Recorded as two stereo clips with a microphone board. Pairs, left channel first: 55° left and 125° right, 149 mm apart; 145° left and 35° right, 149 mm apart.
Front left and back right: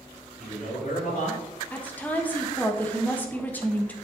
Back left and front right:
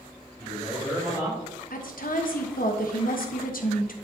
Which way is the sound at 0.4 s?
65° left.